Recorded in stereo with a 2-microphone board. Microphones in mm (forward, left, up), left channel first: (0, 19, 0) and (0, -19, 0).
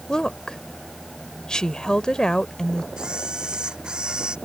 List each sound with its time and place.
0.1 s a woman speaking: 20° left (ahead or behind)
3.0 s a camera shutter: 20° right (ahead or behind)